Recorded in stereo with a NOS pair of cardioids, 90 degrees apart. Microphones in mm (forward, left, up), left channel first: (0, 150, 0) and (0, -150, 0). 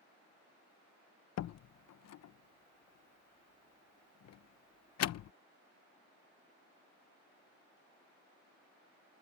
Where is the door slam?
55° left.